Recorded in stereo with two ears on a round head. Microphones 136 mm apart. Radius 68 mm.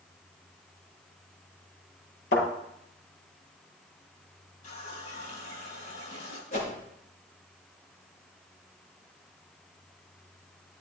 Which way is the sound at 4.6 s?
55° left (ahead or behind).